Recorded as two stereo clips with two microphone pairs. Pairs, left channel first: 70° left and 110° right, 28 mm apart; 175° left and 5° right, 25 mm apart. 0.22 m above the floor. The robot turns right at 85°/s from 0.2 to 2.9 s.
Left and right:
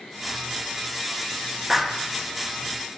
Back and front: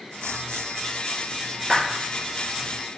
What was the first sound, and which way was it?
A clap, 45° right.